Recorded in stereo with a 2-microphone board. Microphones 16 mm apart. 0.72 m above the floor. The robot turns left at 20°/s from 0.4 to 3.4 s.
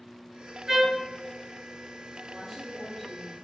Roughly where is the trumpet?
Right.